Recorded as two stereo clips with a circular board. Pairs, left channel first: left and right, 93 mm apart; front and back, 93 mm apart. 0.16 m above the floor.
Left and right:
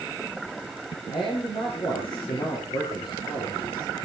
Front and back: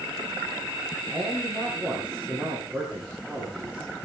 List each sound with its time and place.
1.1 s a man speaking: 100° left, 8 m